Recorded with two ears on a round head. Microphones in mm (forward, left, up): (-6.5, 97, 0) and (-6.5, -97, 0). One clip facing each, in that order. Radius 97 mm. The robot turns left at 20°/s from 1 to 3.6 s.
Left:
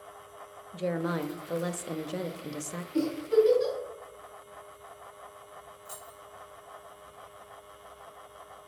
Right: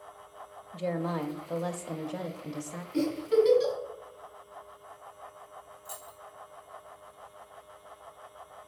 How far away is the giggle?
About 3 m.